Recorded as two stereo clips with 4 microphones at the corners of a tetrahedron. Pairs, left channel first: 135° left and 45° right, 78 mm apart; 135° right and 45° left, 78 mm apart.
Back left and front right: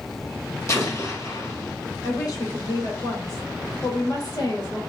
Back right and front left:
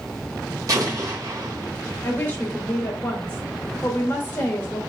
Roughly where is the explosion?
Left.